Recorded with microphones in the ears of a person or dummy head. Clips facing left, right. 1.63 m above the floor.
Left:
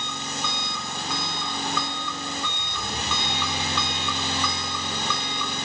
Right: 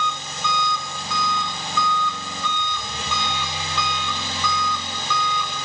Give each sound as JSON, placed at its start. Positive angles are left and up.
{"t": 0.0, "sound": "an engine running", "side_deg": 50, "distance_m": 3.5}